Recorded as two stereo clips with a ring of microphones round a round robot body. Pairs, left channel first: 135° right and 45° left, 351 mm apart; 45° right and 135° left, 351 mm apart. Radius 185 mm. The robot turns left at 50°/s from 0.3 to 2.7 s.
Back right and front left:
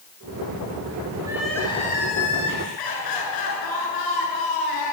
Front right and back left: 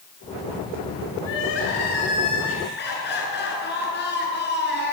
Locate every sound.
1.2 s crying: 35° right, 6.5 m; by 5.0 s 105° right, 6.5 m